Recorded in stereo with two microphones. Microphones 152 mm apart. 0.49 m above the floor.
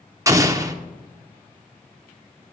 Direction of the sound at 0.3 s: 20° right (ahead or behind).